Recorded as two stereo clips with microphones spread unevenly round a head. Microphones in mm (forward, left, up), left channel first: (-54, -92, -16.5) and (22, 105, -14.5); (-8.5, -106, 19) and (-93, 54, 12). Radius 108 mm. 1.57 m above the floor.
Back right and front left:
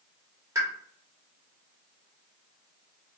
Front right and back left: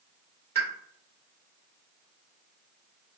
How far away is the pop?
About 2.0 m.